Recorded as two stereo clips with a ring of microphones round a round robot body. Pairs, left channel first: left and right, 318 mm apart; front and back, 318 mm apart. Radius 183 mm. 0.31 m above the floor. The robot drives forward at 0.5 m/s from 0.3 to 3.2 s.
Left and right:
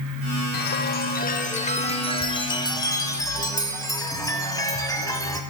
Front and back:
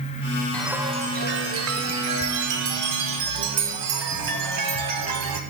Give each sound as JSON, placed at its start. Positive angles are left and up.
{"t": 0.5, "sound": "a chime", "azimuth_deg": 80, "distance_m": 0.5}